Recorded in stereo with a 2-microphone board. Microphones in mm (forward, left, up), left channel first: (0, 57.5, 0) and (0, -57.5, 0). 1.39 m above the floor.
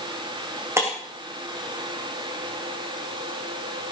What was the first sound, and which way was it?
Breaking glass, 20° right (ahead or behind).